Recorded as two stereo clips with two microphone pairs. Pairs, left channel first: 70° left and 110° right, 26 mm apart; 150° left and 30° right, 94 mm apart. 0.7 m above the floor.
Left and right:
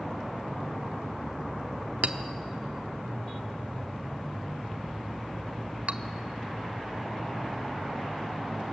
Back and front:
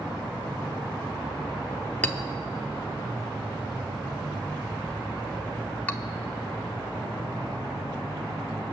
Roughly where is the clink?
Behind right.